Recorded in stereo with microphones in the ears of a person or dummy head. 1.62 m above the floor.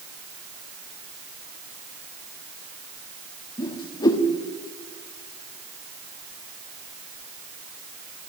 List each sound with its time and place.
3.6 s a whoosh: 25° left (ahead or behind), 1.4 m